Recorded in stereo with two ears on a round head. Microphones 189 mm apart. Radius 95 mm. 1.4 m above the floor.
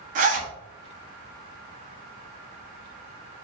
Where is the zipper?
40° right (ahead or behind), 0.9 m.